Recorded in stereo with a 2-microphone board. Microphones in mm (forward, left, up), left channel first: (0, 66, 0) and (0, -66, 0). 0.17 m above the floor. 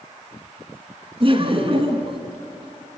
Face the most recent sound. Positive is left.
turn(degrees=-45)  # may be behind; listen again after turning